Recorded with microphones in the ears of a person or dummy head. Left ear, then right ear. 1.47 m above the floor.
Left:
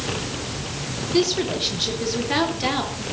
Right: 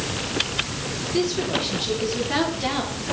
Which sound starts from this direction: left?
A woman speaking, at 1.1 s.